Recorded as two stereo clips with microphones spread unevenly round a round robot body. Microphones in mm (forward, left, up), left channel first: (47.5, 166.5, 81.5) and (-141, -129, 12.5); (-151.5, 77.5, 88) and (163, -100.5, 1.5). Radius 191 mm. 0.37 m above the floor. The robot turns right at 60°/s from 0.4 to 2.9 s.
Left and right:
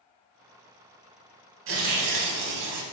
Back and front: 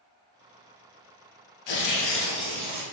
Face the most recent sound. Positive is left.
turn(degrees=-105)